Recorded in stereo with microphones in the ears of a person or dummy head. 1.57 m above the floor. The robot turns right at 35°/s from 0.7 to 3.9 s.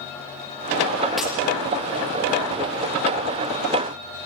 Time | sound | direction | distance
1.2 | breaking glass | centre (ahead or behind) | 6.5 m